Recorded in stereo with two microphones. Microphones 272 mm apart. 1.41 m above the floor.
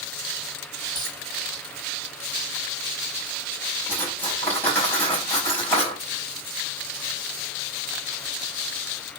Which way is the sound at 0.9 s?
15° left (ahead or behind).